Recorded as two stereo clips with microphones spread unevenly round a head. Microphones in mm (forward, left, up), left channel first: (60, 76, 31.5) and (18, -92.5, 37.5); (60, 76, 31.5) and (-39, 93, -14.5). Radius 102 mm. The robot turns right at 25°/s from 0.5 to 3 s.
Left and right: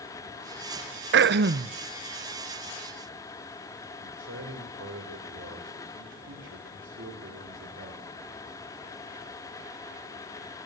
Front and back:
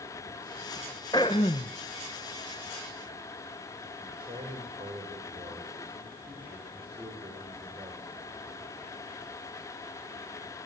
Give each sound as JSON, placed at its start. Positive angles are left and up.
{"t": 1.1, "sound": "throat clearing", "azimuth_deg": -85, "distance_m": 0.7}
{"t": 4.0, "sound": "a man speaking", "azimuth_deg": -130, "distance_m": 6.0}